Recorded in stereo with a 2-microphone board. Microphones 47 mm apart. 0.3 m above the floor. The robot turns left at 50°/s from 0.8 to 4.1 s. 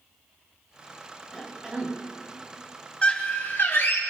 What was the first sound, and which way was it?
A cough, 5° right.